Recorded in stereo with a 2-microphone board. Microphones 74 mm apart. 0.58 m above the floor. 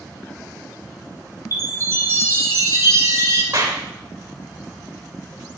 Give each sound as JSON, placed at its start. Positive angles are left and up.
{"t": 1.5, "sound": "a chime", "side_deg": -35, "distance_m": 4.5}
{"t": 3.5, "sound": "a clap", "side_deg": -55, "distance_m": 2.5}